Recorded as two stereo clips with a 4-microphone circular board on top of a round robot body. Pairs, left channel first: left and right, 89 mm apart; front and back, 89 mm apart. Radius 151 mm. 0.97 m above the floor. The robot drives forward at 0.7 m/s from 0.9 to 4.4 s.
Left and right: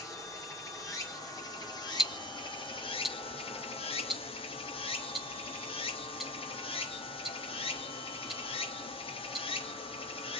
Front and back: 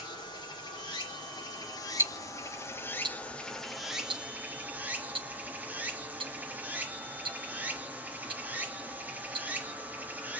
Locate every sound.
0.0 s running water: 35° left, 2.5 m; by 10.4 s 105° left, 1.5 m
2.0 s ticking: 165° right, 0.8 m; by 9.5 s straight behind, 2 m